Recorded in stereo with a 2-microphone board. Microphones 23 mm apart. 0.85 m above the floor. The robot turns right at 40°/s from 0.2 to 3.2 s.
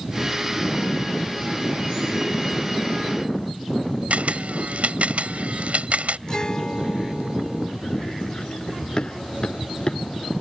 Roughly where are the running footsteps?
Left.